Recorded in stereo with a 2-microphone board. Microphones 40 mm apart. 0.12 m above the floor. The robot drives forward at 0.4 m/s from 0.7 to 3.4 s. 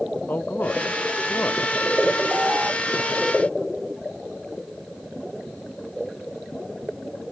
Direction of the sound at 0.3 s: 55° left (ahead or behind).